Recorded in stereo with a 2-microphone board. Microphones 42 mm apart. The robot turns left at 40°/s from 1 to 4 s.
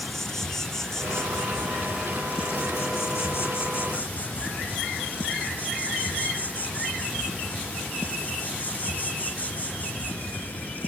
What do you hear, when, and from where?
0.0 s an insect: 170° left, 1.0 m; by 10.9 s 50° left, 1.0 m